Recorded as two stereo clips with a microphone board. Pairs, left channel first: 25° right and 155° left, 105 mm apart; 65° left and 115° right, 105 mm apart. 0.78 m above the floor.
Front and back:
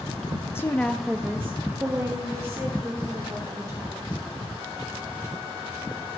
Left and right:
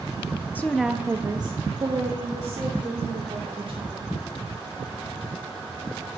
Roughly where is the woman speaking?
Ahead.